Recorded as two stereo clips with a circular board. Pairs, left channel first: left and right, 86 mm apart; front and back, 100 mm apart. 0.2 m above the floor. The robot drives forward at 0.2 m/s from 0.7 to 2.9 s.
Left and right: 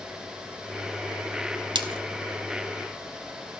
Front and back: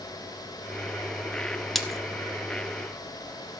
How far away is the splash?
About 1.0 m.